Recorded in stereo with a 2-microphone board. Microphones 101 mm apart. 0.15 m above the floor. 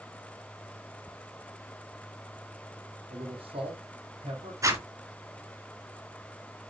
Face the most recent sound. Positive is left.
turn(degrees=-30)  # may be behind; listen again after turning